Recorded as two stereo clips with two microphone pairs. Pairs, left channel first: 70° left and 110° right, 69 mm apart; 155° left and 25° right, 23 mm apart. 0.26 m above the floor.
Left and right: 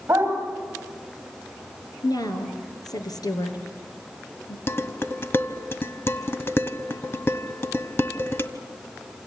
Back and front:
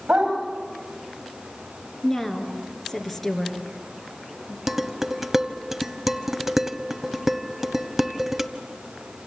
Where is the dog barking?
50° right, 8.5 m.